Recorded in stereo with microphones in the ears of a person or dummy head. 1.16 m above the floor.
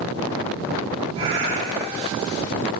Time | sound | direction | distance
1.1 | a cat meowing | 30° right (ahead or behind) | 8.5 m